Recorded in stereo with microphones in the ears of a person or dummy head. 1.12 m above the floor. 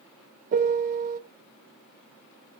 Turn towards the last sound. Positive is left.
turn(degrees=-45)  # may be behind; listen again after turning